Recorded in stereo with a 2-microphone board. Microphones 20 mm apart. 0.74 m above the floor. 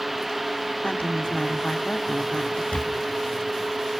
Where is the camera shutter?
75° left (ahead or behind), 1.0 m.